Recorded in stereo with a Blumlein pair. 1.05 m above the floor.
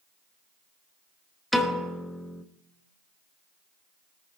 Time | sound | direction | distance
1.5 | a piano | straight ahead | 0.9 m